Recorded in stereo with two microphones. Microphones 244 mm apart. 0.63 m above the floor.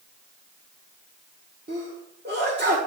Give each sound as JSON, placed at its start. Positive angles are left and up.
{"t": 1.7, "sound": "a sneeze", "side_deg": -45, "distance_m": 1.5}